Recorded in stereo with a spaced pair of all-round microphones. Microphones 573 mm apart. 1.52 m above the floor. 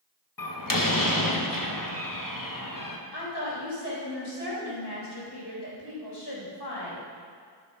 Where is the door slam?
35° left (ahead or behind), 1.1 m.